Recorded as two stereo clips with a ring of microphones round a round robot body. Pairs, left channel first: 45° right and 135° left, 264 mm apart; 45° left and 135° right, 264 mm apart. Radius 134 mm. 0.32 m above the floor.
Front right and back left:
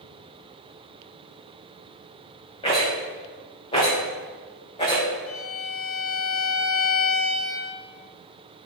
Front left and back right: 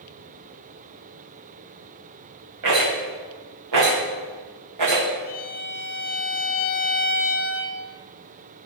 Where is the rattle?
115° right, 5.5 m.